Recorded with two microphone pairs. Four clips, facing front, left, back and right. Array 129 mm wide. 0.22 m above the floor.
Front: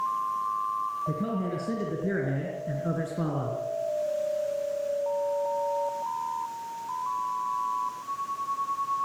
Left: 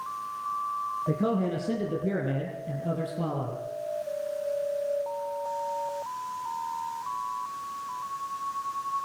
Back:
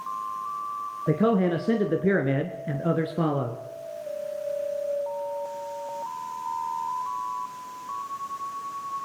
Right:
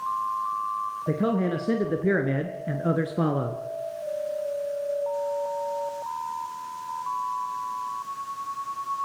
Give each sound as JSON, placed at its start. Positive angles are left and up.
{"t": 1.1, "sound": "a man speaking", "azimuth_deg": -165, "distance_m": 2.5}